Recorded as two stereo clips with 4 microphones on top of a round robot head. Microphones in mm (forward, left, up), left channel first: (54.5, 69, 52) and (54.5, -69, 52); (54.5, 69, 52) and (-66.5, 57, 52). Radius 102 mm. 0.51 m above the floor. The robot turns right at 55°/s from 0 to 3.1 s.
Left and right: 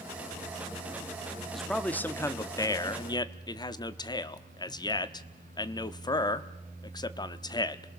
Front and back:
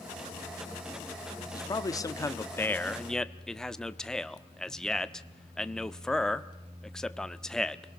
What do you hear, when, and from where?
1.5 s a man speaking: straight ahead, 0.9 m; by 7.9 s 85° left, 0.9 m